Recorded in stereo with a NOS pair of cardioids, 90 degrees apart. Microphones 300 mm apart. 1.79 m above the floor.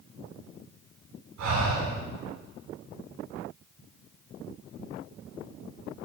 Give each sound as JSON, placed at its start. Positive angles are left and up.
{"t": 1.4, "sound": "breathing", "azimuth_deg": -70, "distance_m": 10.0}